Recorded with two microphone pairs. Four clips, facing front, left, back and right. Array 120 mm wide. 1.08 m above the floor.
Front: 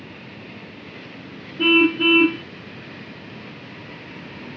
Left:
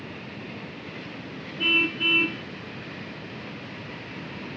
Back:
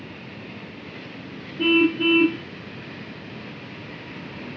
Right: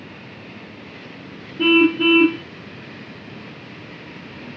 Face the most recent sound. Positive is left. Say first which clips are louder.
# right 14 dB, front 2 dB
turn(degrees=-50)